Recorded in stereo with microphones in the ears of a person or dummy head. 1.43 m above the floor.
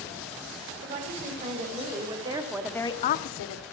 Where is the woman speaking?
50° right (ahead or behind), 3 m; by 3.6 s 85° left, 1.1 m.